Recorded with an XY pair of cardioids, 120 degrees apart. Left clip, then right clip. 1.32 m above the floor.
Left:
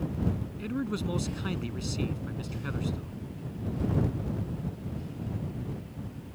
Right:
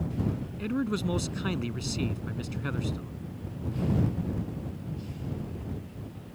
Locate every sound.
0.6 s a man speaking: 20° right